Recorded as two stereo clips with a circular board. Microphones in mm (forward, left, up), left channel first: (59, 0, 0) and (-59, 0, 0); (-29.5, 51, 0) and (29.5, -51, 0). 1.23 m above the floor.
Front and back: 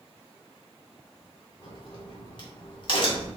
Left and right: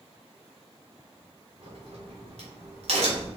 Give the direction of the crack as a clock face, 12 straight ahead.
1 o'clock.